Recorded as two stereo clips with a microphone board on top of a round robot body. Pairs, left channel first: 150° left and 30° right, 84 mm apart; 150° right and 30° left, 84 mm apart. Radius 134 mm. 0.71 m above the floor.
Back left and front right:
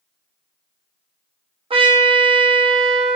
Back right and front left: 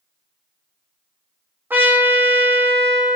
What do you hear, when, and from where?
1.7 s a trumpet: 40° right, 0.6 m